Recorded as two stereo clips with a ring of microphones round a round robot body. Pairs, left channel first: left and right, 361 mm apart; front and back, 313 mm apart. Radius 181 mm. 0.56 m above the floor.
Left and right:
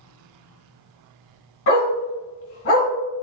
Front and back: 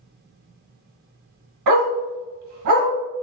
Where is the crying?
I don't hear crying.